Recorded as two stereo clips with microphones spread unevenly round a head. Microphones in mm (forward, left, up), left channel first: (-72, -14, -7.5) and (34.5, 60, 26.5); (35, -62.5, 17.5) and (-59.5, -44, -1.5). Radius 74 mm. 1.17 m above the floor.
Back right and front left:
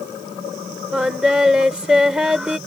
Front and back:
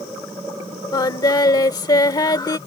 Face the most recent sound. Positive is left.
turn(degrees=-35)